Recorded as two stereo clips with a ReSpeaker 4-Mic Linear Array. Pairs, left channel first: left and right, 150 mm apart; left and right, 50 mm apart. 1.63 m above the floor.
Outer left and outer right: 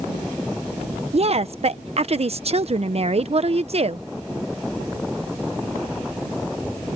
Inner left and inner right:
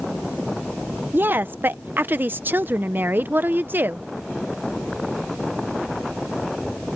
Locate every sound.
1.1 s a woman speaking: 45° right (ahead or behind)